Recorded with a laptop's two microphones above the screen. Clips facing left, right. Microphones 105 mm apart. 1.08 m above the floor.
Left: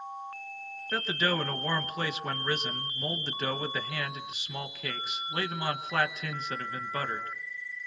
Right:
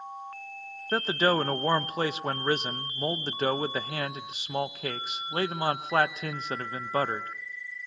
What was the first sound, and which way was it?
A man speaking, 35° right (ahead or behind).